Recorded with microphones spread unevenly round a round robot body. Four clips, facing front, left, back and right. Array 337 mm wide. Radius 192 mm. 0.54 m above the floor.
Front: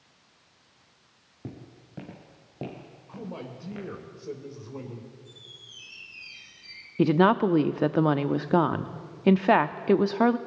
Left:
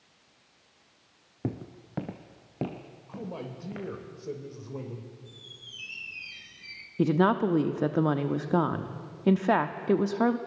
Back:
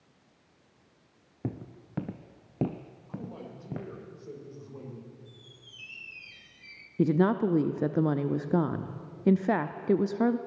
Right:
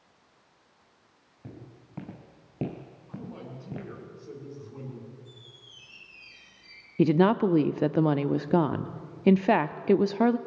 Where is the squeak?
100° left, 3 m.